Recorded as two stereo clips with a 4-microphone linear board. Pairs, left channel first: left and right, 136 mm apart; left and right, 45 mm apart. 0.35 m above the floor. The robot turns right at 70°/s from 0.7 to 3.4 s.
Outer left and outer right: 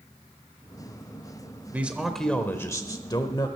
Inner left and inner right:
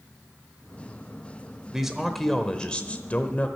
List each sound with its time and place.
1.7 s a man speaking: 25° right, 1.0 m; by 3.5 s 90° left, 1.0 m